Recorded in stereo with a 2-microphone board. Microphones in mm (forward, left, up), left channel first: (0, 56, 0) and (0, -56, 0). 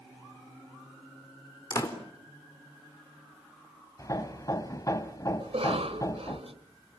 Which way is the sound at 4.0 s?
35° left (ahead or behind).